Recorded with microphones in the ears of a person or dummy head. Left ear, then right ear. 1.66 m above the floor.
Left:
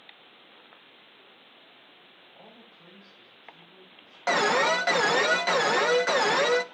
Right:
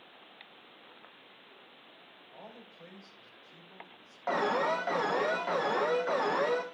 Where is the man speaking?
60° right (ahead or behind), 6 m; by 4.2 s 50° right (ahead or behind), 6.5 m.